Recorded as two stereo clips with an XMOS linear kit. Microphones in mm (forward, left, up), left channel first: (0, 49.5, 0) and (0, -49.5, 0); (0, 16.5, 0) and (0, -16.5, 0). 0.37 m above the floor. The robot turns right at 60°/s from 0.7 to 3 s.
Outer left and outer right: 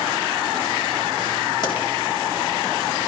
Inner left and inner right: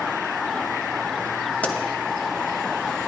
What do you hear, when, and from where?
1.6 s a pop: 55° left (ahead or behind), 1.7 m